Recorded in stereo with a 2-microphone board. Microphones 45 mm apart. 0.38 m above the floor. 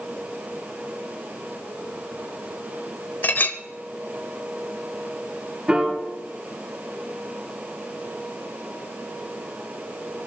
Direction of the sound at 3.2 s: 45° left (ahead or behind).